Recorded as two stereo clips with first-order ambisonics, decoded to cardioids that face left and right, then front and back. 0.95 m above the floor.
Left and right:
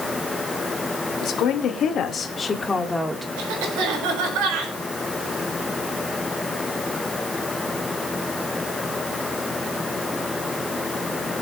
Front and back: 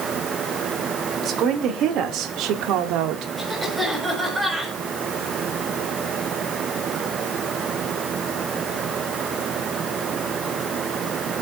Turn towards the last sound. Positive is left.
turn(degrees=-100)